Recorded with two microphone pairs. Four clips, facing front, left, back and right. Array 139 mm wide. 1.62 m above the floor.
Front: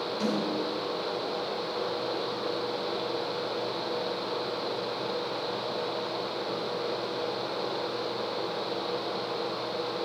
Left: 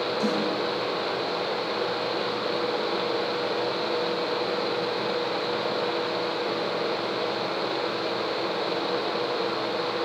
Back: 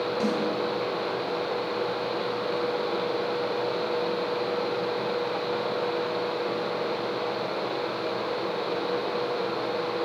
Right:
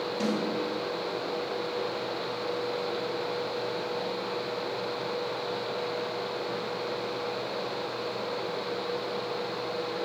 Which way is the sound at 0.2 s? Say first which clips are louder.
Left 2 dB, back 1 dB; 150° right.